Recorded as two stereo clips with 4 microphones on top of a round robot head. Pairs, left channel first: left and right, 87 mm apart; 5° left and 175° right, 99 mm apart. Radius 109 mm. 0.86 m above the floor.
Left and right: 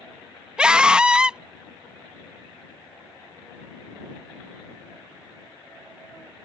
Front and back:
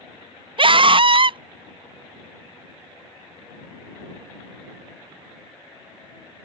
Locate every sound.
0.6 s a scream: 170° right